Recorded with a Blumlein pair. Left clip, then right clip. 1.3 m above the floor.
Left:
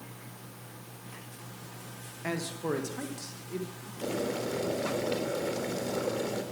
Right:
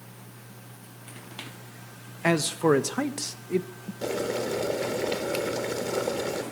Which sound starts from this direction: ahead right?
A man speaking, at 2.2 s.